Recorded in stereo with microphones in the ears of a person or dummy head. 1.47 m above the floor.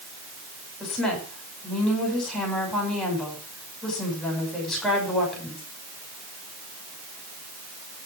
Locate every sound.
0.8 s a woman speaking: centre (ahead or behind), 6.5 m